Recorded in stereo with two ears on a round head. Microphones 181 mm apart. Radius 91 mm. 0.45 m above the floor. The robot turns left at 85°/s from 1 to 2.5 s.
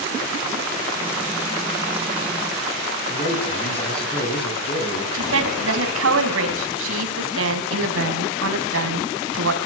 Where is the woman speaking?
75° right (ahead or behind), 3.5 m.